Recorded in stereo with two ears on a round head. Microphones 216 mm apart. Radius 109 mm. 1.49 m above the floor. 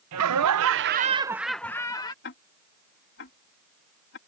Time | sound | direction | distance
0.1 | laughter | 75° right (ahead or behind) | ?
2.2 | ticking | 45° left (ahead or behind) | ?